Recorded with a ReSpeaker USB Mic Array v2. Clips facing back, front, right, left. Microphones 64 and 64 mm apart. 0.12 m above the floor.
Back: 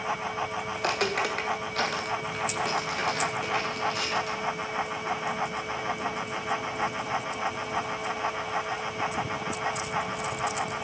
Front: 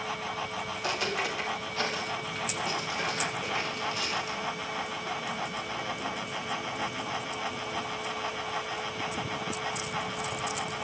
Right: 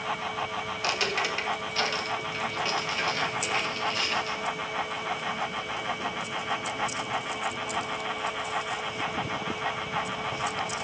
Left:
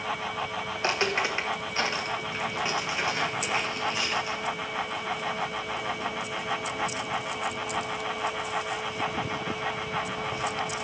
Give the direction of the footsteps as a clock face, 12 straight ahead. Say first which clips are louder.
Back 4 dB, left 3 dB; 7 o'clock.